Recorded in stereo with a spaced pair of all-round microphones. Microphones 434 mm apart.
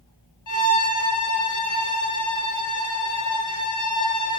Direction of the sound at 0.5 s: 45° left (ahead or behind).